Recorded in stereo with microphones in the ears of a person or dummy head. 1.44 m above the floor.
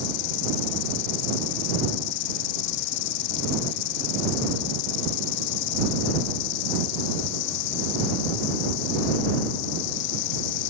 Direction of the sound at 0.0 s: 65° left (ahead or behind).